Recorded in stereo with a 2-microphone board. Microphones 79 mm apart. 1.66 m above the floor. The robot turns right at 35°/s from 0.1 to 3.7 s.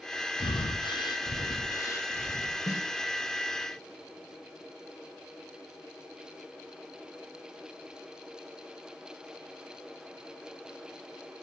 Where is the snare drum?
45° left (ahead or behind), 1.8 m.